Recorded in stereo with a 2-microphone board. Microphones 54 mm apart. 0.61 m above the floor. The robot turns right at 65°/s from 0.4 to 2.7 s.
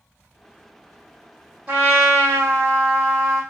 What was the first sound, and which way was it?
A trumpet, 145° right.